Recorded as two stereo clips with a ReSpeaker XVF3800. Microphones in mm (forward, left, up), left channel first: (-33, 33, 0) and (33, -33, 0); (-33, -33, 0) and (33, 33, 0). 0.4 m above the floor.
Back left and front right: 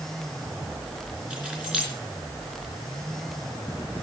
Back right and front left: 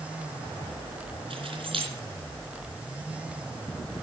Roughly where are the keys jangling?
Ahead left.